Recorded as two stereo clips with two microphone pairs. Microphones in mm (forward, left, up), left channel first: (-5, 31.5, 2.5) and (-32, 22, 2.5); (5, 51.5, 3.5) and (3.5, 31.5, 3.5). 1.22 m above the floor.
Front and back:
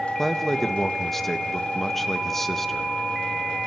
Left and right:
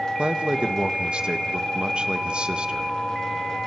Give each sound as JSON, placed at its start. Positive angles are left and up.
{"t": 0.2, "sound": "a man speaking", "azimuth_deg": -65, "distance_m": 1.2}